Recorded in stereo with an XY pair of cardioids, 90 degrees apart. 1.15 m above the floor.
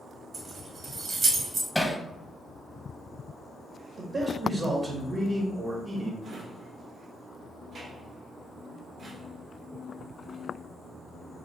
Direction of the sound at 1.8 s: 5° left.